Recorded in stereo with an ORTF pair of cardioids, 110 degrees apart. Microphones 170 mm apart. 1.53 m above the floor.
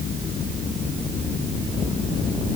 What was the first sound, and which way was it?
Only background noise.